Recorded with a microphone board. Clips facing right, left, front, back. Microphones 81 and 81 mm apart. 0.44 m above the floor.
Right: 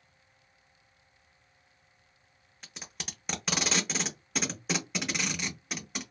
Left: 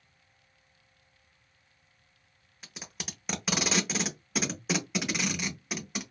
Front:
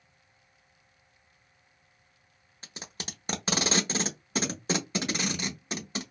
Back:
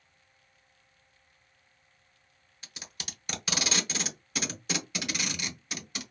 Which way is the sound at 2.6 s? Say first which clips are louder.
Left 2 dB, front 4 dB; 5° left.